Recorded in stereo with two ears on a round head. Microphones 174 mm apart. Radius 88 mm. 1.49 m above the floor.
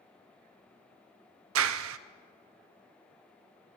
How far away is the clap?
About 0.6 m.